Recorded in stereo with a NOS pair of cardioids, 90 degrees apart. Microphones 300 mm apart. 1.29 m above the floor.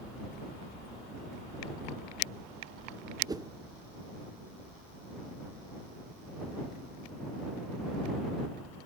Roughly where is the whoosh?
Ahead.